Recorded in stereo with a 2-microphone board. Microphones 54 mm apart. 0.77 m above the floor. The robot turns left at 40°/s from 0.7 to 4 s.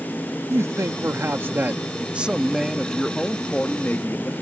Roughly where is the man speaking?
Right.